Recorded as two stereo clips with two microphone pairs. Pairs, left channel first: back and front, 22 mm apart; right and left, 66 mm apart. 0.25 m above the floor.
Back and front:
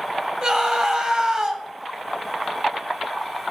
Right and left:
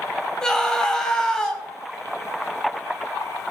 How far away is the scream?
About 1.3 m.